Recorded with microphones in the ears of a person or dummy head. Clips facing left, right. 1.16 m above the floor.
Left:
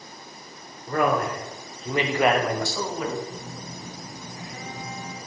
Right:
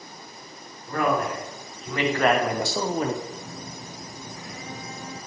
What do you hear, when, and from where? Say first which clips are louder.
0.9 s a man speaking: left 1 dB; 50° left (ahead or behind), 1.1 m; by 3.2 s 40° right (ahead or behind), 0.6 m
3.3 s a phone buzzing: even; 20° left (ahead or behind), 2 m